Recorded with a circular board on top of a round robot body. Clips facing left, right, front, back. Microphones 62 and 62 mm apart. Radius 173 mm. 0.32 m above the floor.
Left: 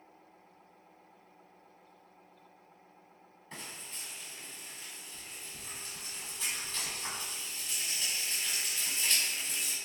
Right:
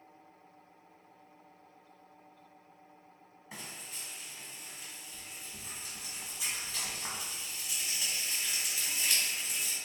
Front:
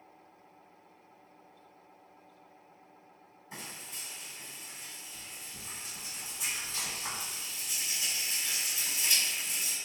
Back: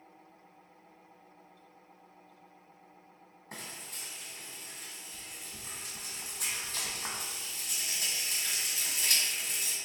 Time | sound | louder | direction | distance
3.5 | frying | even, even | 170° right | 1.5 m